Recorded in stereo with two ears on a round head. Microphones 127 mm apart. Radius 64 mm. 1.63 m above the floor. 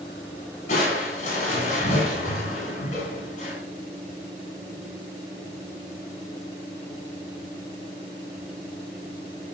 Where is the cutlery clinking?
I don't hear cutlery clinking.